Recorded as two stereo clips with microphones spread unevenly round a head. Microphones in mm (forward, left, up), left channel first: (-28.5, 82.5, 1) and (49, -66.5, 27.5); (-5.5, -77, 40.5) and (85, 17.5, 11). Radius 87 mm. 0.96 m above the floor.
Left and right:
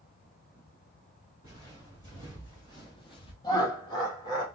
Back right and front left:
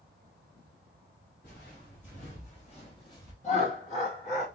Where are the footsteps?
170° right, 3.5 m; by 3.3 s straight behind, 1.2 m.